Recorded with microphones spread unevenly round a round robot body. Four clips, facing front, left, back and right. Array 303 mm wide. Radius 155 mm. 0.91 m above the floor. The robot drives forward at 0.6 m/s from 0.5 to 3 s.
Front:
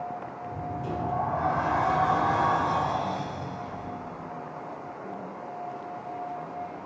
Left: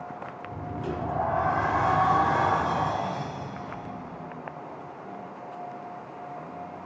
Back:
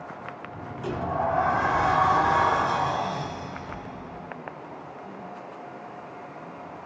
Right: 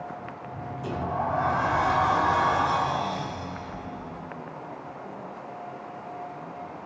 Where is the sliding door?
175° left, 1.0 m.